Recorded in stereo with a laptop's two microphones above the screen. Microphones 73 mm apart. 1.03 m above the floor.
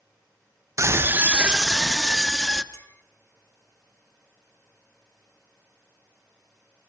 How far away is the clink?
About 1.5 m.